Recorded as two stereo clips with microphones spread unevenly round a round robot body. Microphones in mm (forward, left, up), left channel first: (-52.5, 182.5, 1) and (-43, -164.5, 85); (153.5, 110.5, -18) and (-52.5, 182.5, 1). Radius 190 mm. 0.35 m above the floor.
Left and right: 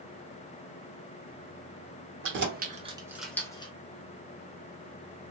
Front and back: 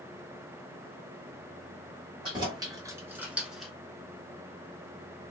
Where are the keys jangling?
135° right, 0.9 m; by 3.7 s 60° left, 0.9 m.